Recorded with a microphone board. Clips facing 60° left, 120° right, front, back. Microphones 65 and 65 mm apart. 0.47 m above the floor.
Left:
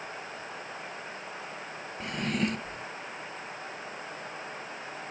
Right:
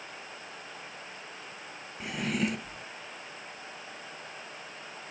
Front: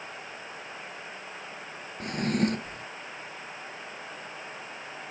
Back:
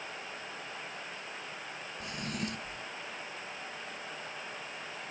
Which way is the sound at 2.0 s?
35° right.